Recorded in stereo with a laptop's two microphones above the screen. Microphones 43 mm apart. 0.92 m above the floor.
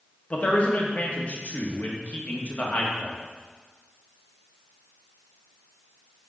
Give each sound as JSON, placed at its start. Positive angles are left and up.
{"t": 0.3, "sound": "a man speaking", "side_deg": 35, "distance_m": 1.3}